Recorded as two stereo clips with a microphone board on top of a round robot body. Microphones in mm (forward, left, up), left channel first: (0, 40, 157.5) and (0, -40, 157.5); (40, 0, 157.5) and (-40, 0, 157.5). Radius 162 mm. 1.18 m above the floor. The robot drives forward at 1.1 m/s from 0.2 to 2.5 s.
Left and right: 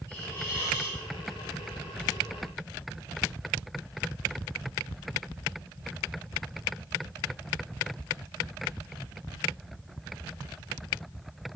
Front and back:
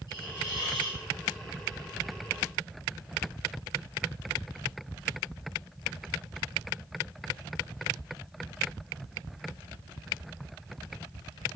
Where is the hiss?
30° left, 3.5 m; by 1.0 s 35° left, 2.5 m.